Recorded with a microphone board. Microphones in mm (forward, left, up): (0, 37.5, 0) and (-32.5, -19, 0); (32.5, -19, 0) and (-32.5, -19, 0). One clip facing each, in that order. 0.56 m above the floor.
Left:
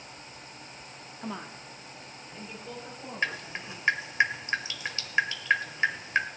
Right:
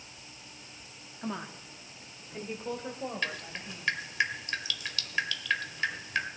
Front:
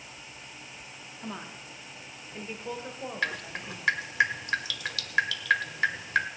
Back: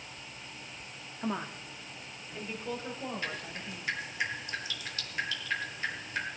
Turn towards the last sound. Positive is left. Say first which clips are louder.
# left 4 dB, front 6 dB
turn(degrees=-5)